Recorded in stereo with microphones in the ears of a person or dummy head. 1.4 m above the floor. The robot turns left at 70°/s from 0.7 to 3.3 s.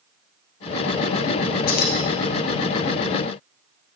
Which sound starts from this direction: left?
Keys jangling, at 1.7 s.